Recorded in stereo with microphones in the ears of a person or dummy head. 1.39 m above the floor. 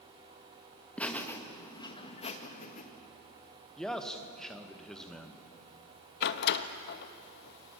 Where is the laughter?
10° left (ahead or behind), 1.8 m; by 2.8 s 45° left (ahead or behind), 1.9 m.